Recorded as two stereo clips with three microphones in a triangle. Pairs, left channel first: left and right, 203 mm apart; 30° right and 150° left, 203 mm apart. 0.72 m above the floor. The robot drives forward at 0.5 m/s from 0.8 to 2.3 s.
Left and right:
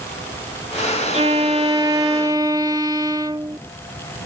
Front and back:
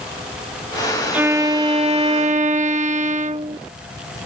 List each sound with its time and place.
1.1 s a violin: 130° right; by 3.6 s 160° right